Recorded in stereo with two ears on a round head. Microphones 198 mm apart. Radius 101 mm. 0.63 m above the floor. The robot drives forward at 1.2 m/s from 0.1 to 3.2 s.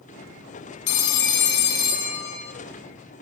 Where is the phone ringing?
70° left (ahead or behind), 1.3 m; by 2.5 s 30° left (ahead or behind), 2.5 m.